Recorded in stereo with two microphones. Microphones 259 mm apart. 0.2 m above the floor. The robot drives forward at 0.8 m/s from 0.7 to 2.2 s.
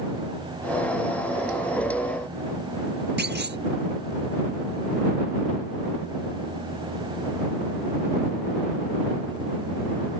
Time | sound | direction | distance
3.2 | a clunk | 40° right (ahead or behind) | ?